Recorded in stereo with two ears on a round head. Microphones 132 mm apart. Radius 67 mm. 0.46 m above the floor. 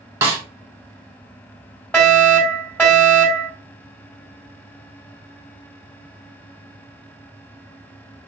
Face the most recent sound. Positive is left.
turn(degrees=10)  # may be behind; listen again after turning